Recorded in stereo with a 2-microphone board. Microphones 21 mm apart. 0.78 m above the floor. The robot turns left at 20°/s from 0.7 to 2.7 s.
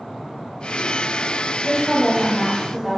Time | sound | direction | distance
1.6 | a woman speaking | 15° left (ahead or behind) | 0.7 m